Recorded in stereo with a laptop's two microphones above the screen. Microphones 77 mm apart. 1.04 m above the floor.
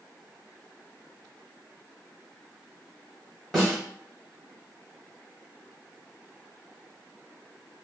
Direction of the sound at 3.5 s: 5° left (ahead or behind).